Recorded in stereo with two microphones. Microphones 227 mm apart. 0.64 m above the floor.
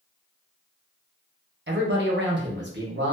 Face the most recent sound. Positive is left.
turn(degrees=-50)  # may be behind; listen again after turning